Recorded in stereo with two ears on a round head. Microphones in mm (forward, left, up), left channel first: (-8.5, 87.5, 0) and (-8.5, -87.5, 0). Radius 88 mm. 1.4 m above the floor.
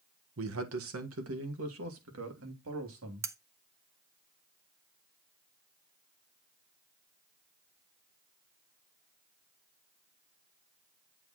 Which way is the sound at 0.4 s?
75° right (ahead or behind).